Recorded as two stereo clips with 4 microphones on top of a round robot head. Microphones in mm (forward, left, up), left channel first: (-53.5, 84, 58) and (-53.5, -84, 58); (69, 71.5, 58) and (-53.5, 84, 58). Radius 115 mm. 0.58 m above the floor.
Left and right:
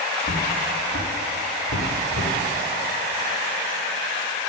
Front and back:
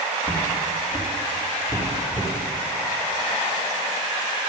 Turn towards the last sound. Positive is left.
turn(degrees=65)